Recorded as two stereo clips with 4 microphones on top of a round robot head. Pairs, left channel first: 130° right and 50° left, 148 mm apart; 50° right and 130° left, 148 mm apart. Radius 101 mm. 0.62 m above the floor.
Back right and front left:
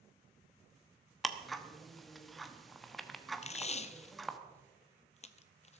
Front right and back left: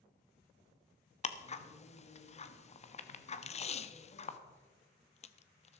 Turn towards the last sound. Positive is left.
turn(degrees=-90)